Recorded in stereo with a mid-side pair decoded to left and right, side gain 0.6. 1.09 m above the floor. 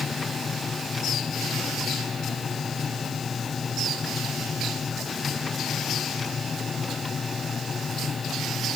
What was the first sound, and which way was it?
A machine running, 30° left.